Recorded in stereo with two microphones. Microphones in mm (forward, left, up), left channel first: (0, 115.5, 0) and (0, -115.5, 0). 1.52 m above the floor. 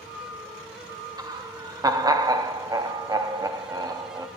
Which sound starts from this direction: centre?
Laughter, at 1.2 s.